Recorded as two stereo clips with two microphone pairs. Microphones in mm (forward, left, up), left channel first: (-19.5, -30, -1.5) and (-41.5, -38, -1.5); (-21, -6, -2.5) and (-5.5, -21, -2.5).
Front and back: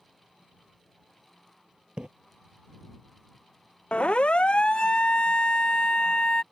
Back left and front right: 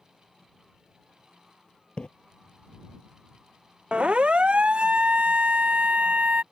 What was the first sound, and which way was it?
A splash, 160° left.